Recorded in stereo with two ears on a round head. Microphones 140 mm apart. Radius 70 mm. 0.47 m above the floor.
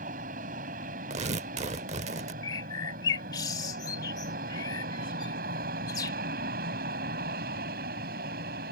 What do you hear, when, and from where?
0.0 s an aircraft: 55° right (ahead or behind); by 8.7 s 65° right (ahead or behind)
1.1 s tearing paper: 45° right (ahead or behind)
2.4 s a bird: 25° left (ahead or behind)